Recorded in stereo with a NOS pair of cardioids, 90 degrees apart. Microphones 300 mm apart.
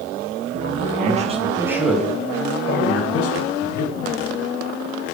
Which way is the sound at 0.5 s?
35° right.